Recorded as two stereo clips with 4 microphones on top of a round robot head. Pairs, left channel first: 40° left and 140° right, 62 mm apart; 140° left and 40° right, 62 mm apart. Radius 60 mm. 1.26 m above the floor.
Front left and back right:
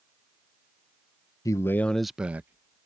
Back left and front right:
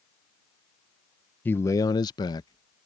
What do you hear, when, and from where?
1.4 s a man speaking: 75° left; by 2.8 s 165° left